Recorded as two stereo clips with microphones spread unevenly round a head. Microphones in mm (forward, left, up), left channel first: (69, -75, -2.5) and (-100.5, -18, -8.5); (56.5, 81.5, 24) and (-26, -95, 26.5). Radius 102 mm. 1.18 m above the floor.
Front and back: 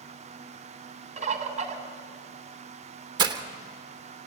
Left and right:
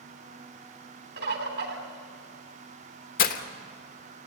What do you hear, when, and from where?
1.2 s a bird: 150° right, 3 m
3.2 s breaking glass: 100° left, 1.1 m